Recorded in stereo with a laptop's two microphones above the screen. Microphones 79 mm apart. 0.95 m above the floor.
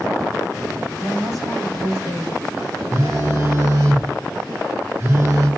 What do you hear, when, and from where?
1.0 s a woman speaking: 55° right (ahead or behind), 2.5 m
2.9 s a phone buzzing: 35° right (ahead or behind), 1.5 m